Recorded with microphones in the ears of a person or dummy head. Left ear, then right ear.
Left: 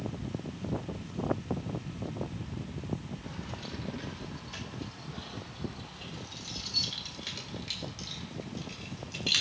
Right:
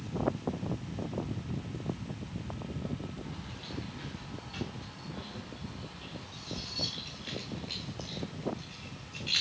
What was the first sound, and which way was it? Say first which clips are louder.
Keys jangling: left 2 dB; 65° left (ahead or behind).